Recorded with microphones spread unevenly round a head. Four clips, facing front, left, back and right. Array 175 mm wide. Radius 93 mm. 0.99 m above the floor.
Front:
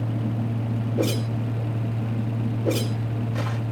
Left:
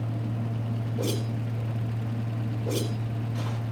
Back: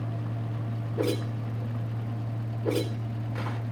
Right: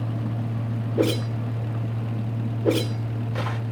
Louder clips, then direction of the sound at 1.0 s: Right 9 dB, front 2 dB; 70° right.